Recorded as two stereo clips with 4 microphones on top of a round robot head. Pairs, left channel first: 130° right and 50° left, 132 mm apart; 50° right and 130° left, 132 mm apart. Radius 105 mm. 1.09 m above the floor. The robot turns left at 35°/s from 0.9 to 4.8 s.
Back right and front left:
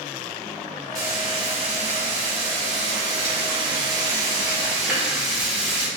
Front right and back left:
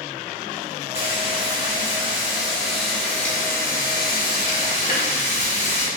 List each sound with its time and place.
0.9 s frying: 105° left, 0.5 m; by 5.9 s 30° right, 0.5 m